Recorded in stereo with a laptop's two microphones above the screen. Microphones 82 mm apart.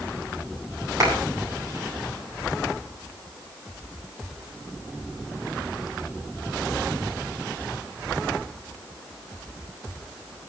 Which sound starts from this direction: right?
A clap, at 1.0 s.